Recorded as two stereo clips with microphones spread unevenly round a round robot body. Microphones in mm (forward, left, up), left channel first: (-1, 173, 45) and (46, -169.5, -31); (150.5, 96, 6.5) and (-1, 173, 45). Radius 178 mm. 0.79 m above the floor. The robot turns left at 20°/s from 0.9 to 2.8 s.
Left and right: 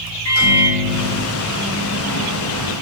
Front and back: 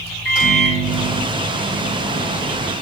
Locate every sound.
0.2 s a microwave: 65° left, 4 m; by 2.7 s 30° left, 4 m